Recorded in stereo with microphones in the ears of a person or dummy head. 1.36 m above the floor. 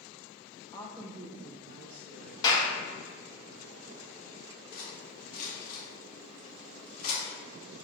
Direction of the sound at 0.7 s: 30° left (ahead or behind).